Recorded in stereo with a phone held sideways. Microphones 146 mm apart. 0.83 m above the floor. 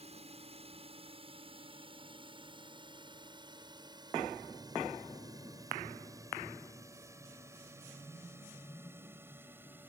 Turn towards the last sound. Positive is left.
turn(degrees=-15)  # may be behind; listen again after turning